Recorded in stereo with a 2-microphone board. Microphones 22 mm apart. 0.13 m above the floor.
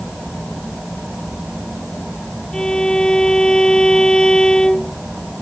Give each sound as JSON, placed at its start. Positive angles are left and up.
{"t": 2.5, "sound": "a violin", "side_deg": 40}